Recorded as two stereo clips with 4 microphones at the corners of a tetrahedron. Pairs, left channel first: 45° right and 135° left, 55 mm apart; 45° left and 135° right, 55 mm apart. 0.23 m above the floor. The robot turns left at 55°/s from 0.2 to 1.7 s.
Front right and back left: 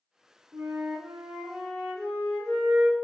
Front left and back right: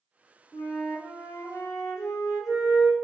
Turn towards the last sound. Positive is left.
turn(degrees=45)